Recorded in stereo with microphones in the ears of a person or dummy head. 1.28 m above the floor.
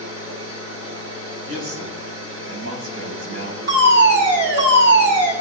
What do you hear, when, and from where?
0.0 s a machine running: 85° right, 9.5 m
1.4 s a man speaking: 85° right, 9.5 m
3.7 s a fire alarm: 65° right (ahead or behind), 7 m